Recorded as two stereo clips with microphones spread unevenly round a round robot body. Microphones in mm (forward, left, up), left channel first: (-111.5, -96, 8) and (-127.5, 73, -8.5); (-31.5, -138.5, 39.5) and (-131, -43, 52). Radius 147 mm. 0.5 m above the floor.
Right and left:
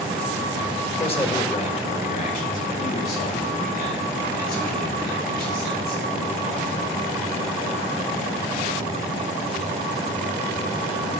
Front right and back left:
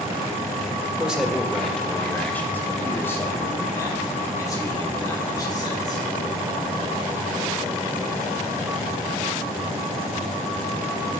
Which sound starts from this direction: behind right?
A man speaking, at 1.0 s.